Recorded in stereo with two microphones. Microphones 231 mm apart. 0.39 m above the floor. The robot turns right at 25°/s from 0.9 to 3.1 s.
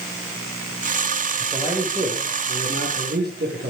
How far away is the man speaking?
About 7.5 m.